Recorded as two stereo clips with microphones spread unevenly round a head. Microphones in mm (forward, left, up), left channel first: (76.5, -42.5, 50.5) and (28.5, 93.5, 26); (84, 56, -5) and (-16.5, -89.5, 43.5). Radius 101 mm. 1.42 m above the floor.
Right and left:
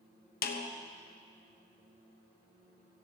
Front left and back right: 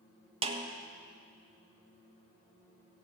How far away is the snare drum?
About 1.2 m.